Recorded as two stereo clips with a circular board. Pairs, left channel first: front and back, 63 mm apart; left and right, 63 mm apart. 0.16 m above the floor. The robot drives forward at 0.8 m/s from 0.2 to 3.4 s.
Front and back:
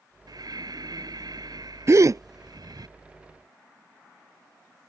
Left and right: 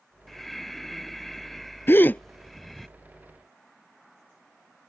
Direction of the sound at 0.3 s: 175° left.